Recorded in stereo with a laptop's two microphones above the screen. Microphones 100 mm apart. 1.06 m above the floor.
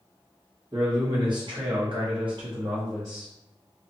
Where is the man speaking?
45° right (ahead or behind), 1.3 m; by 3.3 s 25° right (ahead or behind), 0.7 m.